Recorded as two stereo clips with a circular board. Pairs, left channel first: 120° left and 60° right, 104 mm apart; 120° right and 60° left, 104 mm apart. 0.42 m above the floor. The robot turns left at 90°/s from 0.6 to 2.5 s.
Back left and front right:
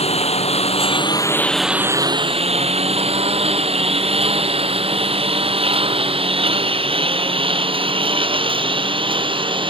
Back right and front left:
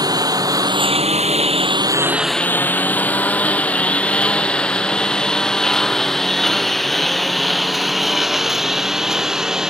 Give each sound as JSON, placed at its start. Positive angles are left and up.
{"t": 0.0, "sound": "a lawn mower", "azimuth_deg": 110}